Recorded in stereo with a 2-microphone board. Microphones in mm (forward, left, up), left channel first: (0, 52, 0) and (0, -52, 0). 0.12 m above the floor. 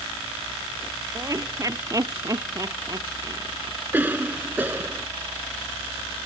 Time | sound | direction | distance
1.1 | laughter | 30° right (ahead or behind) | ?
3.9 | a cough | 20° right (ahead or behind) | ?